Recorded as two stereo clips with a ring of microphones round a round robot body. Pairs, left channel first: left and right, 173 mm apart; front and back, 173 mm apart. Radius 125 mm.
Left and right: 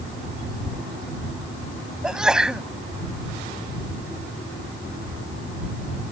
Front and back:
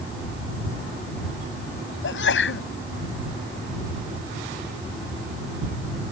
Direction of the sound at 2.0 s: 5° right.